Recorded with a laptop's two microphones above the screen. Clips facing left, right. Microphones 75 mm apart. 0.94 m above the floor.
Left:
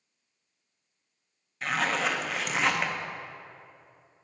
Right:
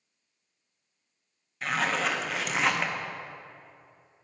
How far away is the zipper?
About 0.6 m.